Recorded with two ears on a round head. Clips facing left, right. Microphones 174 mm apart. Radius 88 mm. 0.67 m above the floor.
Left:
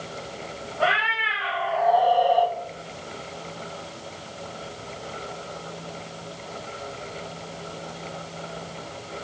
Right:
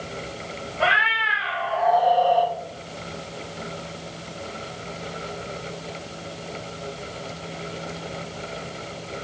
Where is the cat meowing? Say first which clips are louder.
Even; 25° right (ahead or behind), 1.1 m; by 2.5 s 25° left (ahead or behind), 1.1 m.